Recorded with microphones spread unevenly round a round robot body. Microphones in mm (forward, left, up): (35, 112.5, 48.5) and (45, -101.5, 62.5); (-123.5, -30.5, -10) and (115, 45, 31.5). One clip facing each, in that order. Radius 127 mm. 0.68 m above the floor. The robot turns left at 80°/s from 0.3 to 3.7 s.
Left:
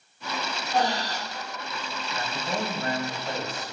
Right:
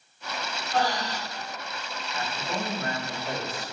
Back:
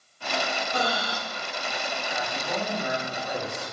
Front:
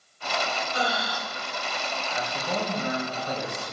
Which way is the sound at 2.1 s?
90° left.